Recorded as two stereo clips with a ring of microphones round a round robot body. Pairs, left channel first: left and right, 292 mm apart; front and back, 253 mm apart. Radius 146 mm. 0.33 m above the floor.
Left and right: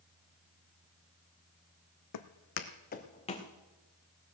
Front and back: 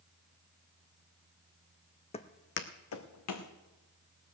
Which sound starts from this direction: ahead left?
Footsteps, at 2.1 s.